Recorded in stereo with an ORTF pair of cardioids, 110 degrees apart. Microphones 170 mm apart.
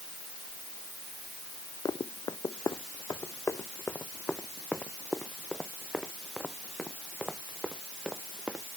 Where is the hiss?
I don't hear a hiss.